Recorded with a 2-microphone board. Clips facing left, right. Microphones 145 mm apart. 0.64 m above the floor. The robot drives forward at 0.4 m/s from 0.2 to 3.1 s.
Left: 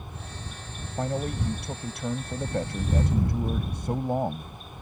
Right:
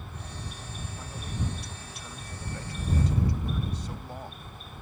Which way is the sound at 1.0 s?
70° left (ahead or behind).